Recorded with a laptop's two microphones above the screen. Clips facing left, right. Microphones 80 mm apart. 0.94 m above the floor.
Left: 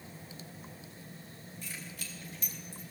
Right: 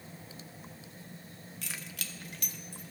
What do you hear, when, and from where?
1.6 s keys jangling: 75° right (ahead or behind), 0.8 m; by 2.9 s 55° right (ahead or behind), 1.3 m